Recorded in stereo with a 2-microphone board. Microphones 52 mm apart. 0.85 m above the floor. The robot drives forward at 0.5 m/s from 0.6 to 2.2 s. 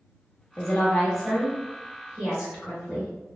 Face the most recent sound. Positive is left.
turn(degrees=20)  # may be behind; listen again after turning